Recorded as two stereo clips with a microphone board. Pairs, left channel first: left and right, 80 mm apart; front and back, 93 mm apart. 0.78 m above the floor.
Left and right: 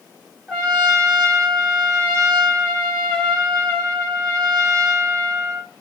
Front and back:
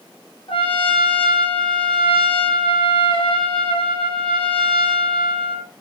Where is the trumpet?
5° right, 2.5 m.